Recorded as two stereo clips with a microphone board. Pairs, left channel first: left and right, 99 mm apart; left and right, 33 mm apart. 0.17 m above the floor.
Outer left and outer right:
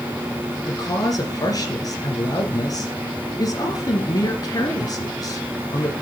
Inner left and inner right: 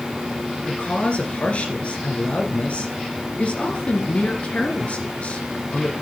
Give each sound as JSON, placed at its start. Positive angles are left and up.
{"t": 0.7, "sound": "a woman speaking", "side_deg": 40, "distance_m": 2.5}